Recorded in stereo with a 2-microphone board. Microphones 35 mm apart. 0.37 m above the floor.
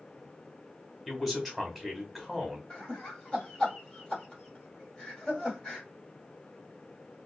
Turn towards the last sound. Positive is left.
turn(degrees=30)  # may be behind; listen again after turning